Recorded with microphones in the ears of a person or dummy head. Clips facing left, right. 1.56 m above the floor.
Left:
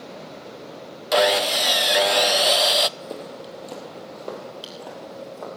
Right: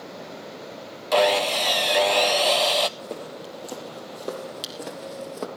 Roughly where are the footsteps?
Centre.